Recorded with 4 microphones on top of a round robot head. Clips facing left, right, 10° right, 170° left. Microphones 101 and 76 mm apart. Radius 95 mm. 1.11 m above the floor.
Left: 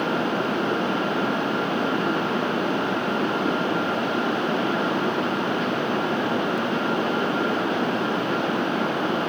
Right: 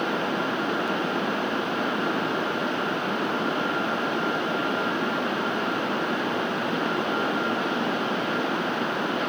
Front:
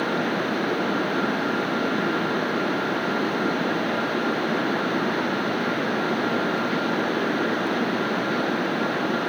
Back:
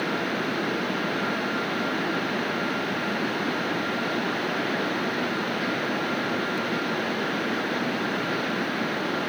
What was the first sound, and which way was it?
Only background noise.